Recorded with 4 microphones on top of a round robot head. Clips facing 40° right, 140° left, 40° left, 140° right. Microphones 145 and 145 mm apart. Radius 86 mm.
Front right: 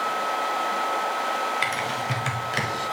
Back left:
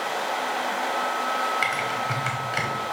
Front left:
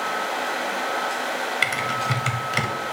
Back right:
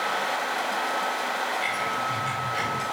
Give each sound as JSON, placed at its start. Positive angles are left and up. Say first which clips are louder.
{"t": 1.6, "sound": "typing on a keyboard", "louder": "even, front left 2 dB", "azimuth_deg": 25, "distance_m": 0.9}